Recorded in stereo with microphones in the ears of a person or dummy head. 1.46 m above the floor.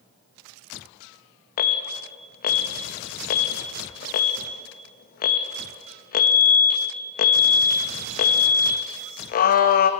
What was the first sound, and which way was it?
An alarm, 50° left (ahead or behind).